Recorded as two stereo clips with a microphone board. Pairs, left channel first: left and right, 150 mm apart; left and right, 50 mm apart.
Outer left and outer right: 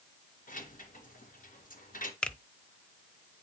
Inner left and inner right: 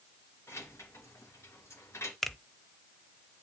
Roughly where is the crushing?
I don't hear crushing.